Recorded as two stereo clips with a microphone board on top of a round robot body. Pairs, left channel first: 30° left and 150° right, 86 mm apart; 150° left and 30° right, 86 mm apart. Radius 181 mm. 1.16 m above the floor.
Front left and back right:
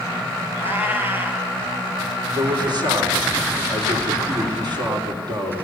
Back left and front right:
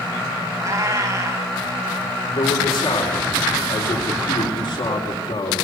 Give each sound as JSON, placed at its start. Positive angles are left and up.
{"t": 0.6, "sound": "a cat meowing", "azimuth_deg": -80, "distance_m": 2.5}
{"t": 2.4, "sound": "a man speaking", "azimuth_deg": 175, "distance_m": 4.5}